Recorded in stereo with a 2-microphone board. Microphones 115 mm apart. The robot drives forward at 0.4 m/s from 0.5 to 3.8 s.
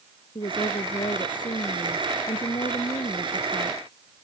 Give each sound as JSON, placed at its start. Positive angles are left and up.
{"t": 0.3, "sound": "a woman speaking", "side_deg": 50}